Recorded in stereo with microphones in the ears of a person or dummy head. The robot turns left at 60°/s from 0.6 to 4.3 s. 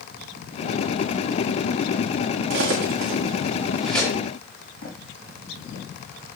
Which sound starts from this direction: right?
Cutlery clinking, at 2.5 s.